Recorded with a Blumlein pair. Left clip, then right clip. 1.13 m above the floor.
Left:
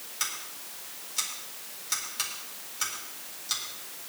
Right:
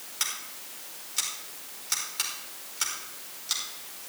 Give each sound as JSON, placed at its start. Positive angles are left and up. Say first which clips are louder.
{"t": 0.2, "sound": "scissors", "louder": "right 1 dB", "azimuth_deg": -10, "distance_m": 4.5}